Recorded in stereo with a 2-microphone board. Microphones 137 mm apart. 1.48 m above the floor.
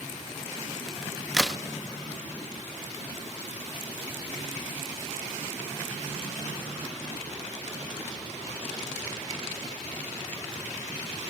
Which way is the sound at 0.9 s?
Centre (ahead or behind).